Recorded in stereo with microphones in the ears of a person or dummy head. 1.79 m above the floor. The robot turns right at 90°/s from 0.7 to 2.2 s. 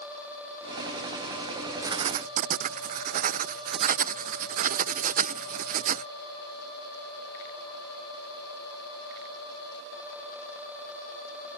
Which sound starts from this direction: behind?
Writing, at 1.8 s.